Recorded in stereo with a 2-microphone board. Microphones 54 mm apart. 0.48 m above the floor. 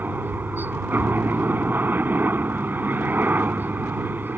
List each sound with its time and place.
0.0 s a helicopter: 40° right (ahead or behind)